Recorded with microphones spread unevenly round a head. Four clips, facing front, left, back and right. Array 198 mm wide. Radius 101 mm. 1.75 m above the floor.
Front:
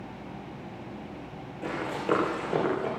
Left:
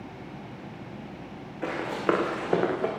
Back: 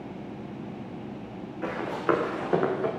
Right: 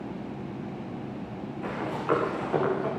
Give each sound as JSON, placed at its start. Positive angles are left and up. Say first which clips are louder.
{"t": 1.6, "sound": "running footsteps", "louder": "left 3 dB, back 2 dB", "azimuth_deg": 120, "distance_m": 8.5}